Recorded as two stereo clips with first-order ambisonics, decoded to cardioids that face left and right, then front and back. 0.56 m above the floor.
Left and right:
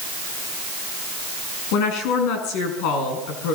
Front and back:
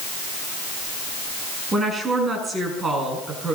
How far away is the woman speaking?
About 6 m.